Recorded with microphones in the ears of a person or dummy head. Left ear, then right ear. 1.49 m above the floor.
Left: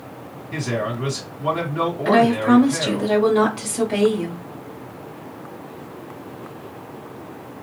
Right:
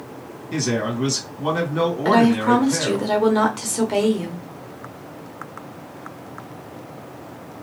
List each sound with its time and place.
0.5 s a man speaking: 85° right, 2 m
2.0 s a woman speaking: 35° right (ahead or behind), 1.1 m